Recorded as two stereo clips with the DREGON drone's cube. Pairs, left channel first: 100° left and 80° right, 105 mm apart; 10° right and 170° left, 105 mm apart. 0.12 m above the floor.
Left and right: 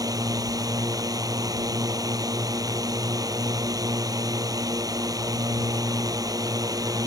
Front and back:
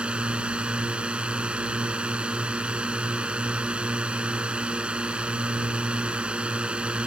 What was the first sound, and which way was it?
A drone, 115° right.